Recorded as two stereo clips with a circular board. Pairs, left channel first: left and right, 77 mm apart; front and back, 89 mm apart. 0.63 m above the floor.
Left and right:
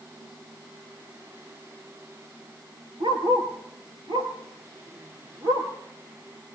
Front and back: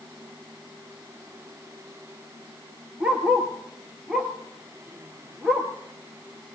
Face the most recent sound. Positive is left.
turn(degrees=-100)